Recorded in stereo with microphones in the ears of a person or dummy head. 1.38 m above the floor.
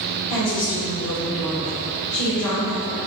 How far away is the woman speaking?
About 1.9 m.